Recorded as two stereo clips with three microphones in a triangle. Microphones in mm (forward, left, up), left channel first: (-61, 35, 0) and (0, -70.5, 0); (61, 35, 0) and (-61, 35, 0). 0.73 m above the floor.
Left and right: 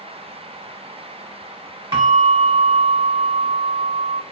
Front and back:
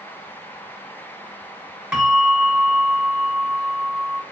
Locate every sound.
1.9 s a bell: 100° right, 1.1 m